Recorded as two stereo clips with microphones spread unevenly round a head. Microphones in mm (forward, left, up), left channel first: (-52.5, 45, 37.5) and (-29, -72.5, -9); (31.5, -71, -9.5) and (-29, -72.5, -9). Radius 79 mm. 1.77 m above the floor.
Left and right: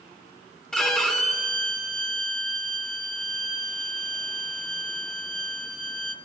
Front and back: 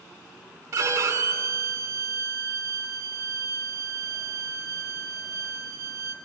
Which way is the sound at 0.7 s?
170° left.